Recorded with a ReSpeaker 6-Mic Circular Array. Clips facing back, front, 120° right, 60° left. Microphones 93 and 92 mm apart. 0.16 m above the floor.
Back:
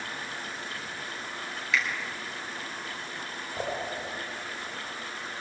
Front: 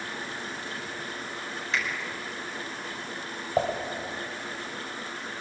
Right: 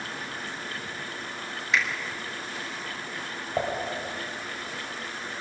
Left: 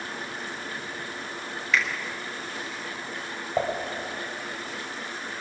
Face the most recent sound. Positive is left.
turn(degrees=-35)